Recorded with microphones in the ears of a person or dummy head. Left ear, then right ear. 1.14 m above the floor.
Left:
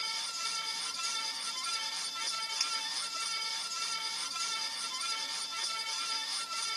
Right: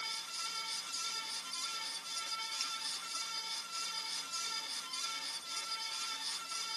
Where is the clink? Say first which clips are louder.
Left 8 dB; 15° left (ahead or behind).